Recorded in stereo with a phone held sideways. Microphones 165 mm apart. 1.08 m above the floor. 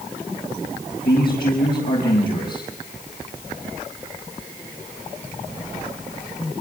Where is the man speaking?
70° left (ahead or behind), 5.5 m.